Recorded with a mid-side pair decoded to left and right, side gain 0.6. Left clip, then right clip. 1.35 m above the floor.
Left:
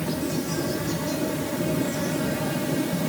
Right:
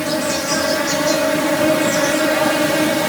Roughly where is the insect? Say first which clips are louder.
Right 9 dB; ahead right.